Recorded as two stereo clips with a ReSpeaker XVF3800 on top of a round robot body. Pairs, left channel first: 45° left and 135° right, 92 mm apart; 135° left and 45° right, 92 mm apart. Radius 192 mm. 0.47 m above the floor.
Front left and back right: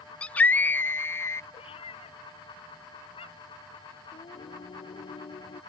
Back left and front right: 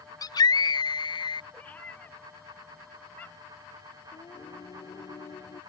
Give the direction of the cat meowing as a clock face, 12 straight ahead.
10 o'clock.